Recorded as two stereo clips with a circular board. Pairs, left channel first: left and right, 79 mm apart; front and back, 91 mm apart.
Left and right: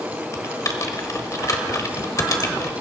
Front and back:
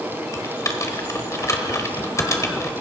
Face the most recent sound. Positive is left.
turn(degrees=50)